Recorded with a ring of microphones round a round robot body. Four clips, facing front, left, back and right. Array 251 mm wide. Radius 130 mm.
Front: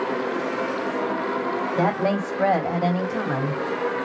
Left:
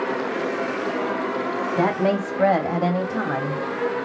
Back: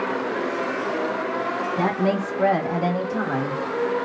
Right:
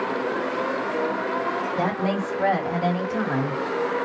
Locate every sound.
1.8 s a woman speaking: 40° left, 2.0 m; by 3.6 s 135° left, 1.3 m